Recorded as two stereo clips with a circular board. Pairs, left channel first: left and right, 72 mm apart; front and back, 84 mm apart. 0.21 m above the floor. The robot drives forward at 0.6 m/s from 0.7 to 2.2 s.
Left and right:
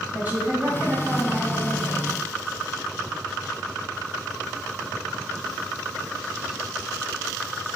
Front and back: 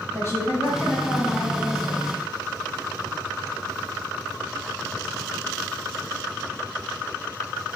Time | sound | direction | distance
0.1 | a woman speaking | 35° right | 1.3 m